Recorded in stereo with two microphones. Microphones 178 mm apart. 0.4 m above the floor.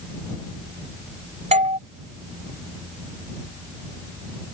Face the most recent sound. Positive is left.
turn(degrees=-40)  # may be behind; listen again after turning